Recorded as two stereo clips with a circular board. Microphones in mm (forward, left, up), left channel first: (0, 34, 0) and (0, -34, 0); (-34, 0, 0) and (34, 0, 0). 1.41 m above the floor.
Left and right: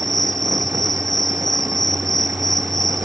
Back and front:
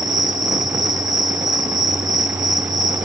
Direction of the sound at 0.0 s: 5° left.